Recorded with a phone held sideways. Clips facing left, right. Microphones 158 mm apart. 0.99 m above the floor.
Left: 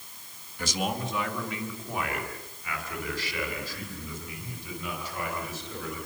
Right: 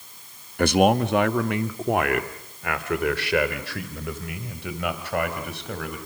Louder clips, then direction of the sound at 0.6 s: Right 13 dB; 60° right (ahead or behind).